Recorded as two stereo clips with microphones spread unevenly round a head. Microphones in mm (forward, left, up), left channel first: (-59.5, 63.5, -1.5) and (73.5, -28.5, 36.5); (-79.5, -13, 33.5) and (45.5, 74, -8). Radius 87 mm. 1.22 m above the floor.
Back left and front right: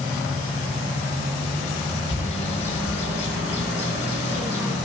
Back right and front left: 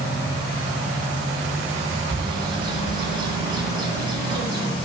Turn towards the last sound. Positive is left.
turn(degrees=95)